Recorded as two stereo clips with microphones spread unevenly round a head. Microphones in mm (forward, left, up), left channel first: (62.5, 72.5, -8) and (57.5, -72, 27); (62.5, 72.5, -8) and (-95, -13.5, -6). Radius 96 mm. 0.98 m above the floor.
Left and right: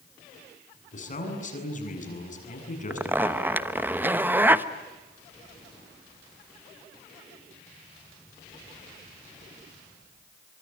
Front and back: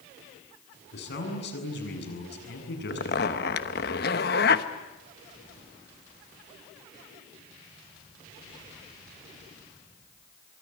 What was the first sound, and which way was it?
A man speaking, 55° left.